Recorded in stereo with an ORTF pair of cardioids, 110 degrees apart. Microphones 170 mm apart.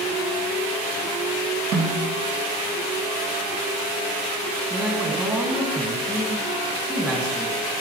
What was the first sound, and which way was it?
A snare drum, 55° right.